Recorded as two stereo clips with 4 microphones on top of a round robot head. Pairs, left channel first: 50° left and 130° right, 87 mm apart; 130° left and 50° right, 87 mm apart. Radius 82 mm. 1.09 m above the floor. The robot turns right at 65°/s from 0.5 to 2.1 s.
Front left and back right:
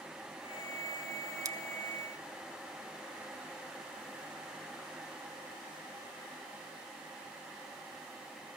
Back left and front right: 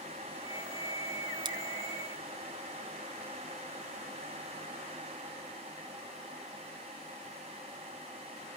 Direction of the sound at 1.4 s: 85° right.